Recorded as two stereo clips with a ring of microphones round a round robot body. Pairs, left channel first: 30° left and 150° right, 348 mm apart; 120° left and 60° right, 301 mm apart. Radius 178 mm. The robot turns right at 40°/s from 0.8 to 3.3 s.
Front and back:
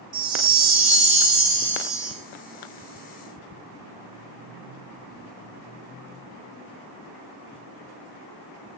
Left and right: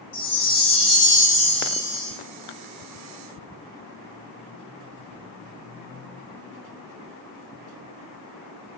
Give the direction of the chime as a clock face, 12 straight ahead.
6 o'clock.